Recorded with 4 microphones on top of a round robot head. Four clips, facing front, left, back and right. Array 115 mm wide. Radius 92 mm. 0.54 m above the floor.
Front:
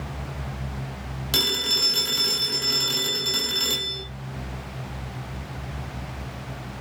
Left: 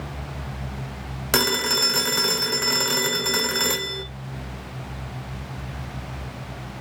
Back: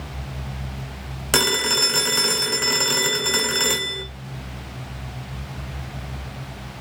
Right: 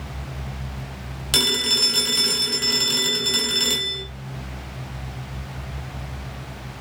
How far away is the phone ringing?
About 1.5 m.